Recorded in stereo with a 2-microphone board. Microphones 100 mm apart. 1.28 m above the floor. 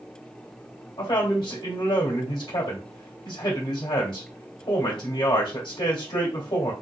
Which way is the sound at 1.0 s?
65° left (ahead or behind).